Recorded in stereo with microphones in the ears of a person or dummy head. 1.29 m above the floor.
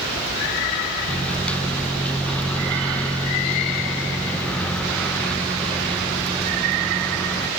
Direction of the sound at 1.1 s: 5° left (ahead or behind).